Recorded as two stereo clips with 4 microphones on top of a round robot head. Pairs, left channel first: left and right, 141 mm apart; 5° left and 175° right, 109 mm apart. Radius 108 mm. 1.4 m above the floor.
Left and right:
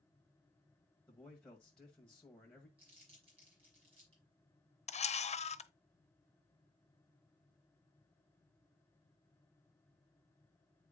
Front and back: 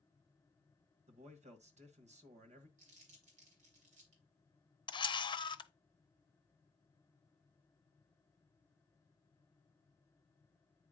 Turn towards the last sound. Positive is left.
turn(degrees=50)